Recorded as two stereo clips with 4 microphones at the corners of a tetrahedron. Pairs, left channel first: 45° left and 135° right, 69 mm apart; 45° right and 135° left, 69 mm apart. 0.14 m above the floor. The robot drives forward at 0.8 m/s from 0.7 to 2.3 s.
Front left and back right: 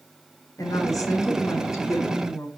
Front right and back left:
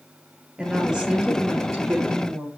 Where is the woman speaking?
55° left, 3 m; by 2.5 s 85° left, 2.5 m.